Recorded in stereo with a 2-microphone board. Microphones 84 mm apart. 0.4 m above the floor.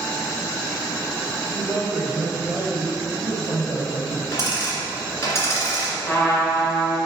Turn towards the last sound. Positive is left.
turn(degrees=25)  # may be behind; listen again after turning